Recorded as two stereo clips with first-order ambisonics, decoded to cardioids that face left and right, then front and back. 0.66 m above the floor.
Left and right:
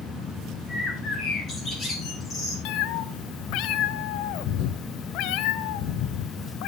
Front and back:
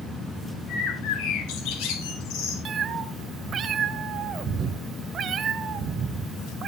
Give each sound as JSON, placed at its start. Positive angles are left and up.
{"t": 0.7, "sound": "a bird", "azimuth_deg": 20, "distance_m": 4.0}
{"t": 2.6, "sound": "a cat meowing", "azimuth_deg": 120, "distance_m": 0.8}